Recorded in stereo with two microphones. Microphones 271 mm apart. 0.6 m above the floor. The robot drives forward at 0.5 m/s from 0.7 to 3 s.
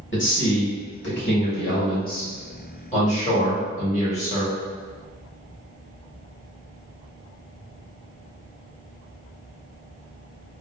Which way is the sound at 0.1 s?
45° left (ahead or behind).